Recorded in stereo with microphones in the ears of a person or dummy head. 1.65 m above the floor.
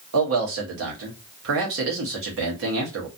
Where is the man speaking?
65° right (ahead or behind), 1.0 m.